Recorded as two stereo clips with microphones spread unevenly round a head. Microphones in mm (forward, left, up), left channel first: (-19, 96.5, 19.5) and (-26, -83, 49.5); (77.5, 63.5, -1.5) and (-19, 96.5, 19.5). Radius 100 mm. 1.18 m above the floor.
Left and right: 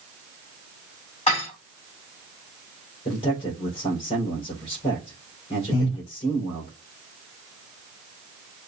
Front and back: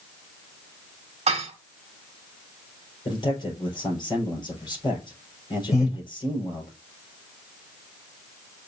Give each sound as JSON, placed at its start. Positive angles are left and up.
{"t": 1.3, "sound": "dishes clattering", "azimuth_deg": 145, "distance_m": 1.4}
{"t": 3.0, "sound": "a man speaking", "azimuth_deg": 25, "distance_m": 4.0}
{"t": 5.7, "sound": "breathing", "azimuth_deg": 40, "distance_m": 4.5}